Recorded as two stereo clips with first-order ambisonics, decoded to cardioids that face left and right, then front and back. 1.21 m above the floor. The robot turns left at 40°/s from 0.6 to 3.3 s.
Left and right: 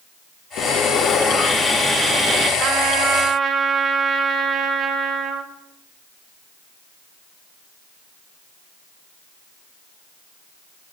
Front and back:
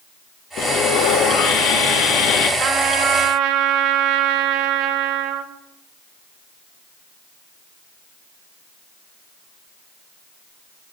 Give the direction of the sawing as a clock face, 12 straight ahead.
10 o'clock.